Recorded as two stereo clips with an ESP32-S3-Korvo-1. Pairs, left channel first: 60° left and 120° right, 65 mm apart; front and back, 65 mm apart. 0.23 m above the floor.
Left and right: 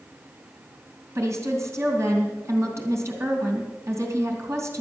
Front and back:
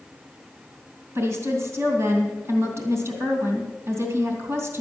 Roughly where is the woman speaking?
Behind right.